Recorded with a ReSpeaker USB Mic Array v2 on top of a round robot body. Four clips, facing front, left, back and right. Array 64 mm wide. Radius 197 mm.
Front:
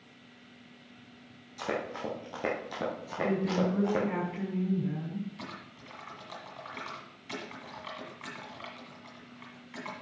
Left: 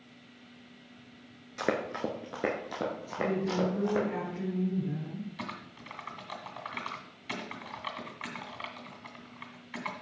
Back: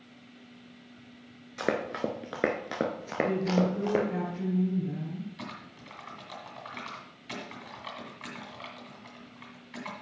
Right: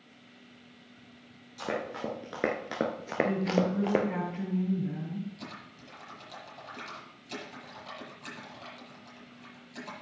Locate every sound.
1.6 s running footsteps: 140° left, 0.6 m; by 4.0 s 105° right, 1.1 m
3.2 s a woman speaking: straight ahead, 3.5 m
5.4 s typing on a keyboard: 95° left, 2.5 m